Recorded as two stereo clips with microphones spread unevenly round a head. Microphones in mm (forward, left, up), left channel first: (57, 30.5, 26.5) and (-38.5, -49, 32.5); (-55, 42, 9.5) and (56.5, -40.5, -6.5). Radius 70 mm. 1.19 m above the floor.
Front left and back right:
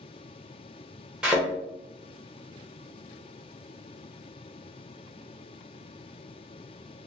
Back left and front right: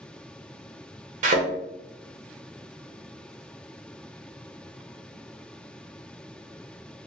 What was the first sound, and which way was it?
A thud, 60° right.